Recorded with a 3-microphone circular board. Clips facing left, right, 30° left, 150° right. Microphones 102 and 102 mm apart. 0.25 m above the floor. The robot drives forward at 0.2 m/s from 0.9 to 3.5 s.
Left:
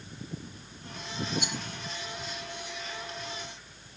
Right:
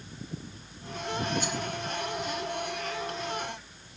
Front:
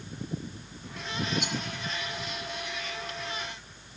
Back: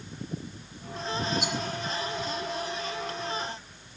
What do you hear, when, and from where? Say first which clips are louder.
1.4 s a rattle: right 4 dB, back 2 dB; 130° left, 1.1 m; by 1.6 s 135° left, 1.1 m